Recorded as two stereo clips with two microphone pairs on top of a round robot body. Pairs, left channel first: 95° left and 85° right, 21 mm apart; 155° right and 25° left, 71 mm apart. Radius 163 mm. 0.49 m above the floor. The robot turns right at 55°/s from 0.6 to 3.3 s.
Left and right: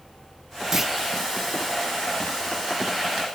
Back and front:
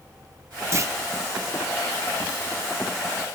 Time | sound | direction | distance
0.7 | a clunk | 10° right | 0.9 m